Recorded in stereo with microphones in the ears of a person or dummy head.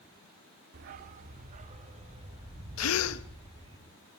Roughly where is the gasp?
Left.